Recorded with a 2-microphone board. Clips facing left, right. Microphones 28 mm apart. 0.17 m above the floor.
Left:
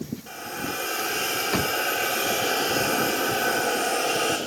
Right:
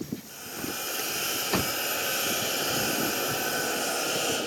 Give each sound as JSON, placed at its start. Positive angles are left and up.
{"t": 0.3, "sound": "a hiss", "side_deg": 45, "distance_m": 3.5}